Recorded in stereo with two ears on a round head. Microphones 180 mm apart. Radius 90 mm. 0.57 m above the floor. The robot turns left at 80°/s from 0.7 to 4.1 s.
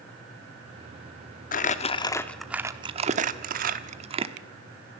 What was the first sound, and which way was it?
Crumpling, 40° left (ahead or behind).